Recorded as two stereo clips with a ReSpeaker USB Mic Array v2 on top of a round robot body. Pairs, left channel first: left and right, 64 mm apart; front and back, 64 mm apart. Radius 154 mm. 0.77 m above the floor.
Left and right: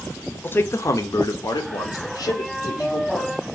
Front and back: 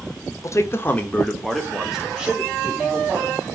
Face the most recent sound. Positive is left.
turn(degrees=115)